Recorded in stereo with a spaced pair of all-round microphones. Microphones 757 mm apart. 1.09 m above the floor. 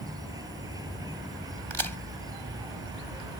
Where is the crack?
35° right (ahead or behind).